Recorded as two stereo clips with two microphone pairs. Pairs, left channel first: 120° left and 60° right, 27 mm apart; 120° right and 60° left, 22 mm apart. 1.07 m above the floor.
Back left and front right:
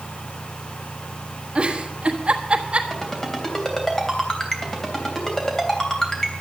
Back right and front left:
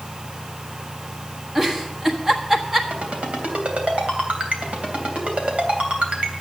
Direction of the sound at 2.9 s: 50° left.